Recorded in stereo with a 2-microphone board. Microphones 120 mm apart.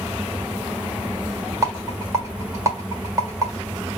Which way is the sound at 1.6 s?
25° right (ahead or behind).